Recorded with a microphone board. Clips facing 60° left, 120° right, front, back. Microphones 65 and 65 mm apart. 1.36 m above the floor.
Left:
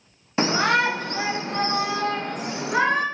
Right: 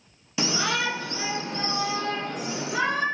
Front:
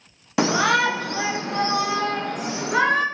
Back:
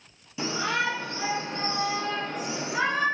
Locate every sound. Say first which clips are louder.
0.4 s a shout: left 6 dB, front 9 dB; 15° left, 0.9 m; by 3.0 s 25° left, 2.5 m